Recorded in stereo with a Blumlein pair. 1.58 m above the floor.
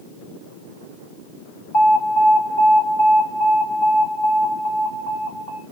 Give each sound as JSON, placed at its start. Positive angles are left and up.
{"t": 1.7, "sound": "an alarm", "azimuth_deg": 40, "distance_m": 3.0}